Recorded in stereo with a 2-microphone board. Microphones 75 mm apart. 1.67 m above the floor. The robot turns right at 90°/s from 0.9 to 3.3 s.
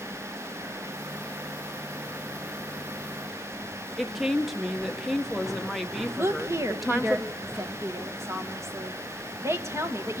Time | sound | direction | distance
4.0 | a woman speaking | centre (ahead or behind) | 1.2 m
6.2 | a woman speaking | 35° right (ahead or behind) | 1.8 m